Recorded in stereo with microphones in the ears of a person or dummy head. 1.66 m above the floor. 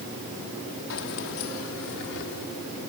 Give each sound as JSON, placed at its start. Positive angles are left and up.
{"t": 0.9, "sound": "keys jangling", "side_deg": 75}